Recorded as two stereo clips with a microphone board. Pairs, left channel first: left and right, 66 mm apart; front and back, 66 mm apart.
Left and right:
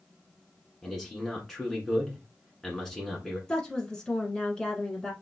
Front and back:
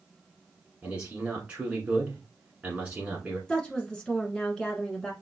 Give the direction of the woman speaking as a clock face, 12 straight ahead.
11 o'clock.